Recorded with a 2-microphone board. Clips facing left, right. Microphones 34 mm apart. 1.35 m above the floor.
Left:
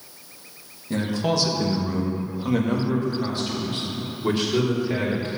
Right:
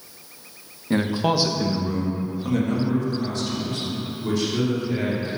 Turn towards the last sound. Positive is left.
turn(degrees=35)  # may be behind; listen again after turning